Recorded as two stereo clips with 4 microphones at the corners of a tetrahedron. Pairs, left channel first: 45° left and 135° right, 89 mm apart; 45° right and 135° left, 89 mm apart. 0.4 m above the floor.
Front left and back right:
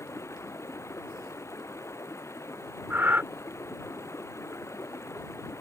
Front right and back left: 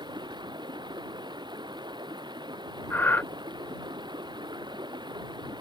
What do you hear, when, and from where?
0.0 s running water: 100° left
2.9 s breathing: 90° right